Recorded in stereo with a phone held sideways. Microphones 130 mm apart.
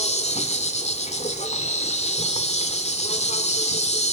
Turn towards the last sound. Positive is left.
turn(degrees=55)  # may be behind; listen again after turning